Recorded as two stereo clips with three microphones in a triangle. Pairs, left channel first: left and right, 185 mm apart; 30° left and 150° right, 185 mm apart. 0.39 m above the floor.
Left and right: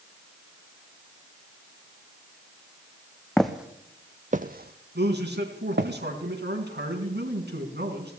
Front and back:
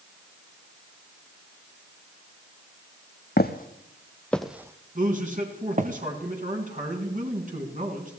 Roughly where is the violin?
I don't hear a violin.